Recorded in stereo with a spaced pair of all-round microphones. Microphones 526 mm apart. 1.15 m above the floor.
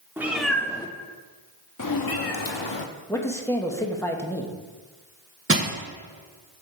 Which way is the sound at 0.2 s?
5° right (ahead or behind).